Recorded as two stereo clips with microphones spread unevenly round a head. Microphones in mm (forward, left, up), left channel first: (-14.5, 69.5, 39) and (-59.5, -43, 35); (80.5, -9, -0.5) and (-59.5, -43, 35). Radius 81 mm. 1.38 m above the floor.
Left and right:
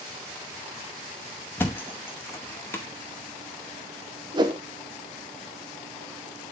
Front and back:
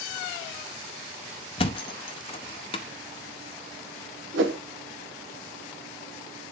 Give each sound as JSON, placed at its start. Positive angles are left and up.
{"t": 1.6, "sound": "a thud", "azimuth_deg": 35, "distance_m": 0.7}
{"t": 4.3, "sound": "a whoosh", "azimuth_deg": -165, "distance_m": 1.3}